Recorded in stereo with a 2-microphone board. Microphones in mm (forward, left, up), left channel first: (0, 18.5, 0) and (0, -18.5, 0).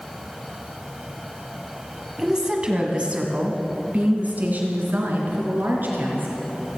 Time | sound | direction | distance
2.2 | a woman speaking | 15° right (ahead or behind) | 1.6 m